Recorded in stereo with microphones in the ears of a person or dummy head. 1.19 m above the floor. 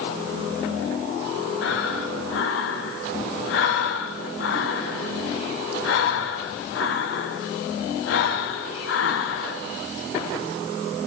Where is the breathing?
75° left (ahead or behind), 1.5 m.